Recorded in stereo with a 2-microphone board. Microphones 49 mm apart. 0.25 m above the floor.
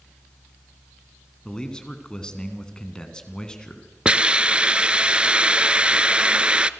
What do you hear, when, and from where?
1.4 s a man speaking: 15° left (ahead or behind), 3 m
4.0 s a hiss: 20° right (ahead or behind), 0.7 m